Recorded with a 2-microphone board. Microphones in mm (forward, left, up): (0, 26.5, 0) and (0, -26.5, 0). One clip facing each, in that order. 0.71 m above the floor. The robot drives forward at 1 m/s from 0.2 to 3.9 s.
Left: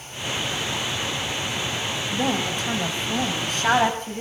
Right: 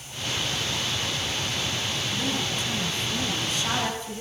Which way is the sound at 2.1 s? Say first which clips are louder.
Left 7 dB; 70° left (ahead or behind).